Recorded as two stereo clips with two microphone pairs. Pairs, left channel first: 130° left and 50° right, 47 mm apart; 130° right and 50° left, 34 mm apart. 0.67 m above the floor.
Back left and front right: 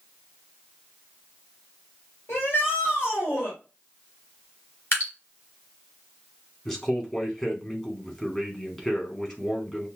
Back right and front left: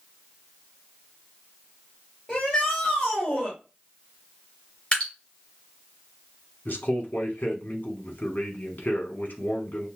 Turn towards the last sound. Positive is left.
turn(degrees=-150)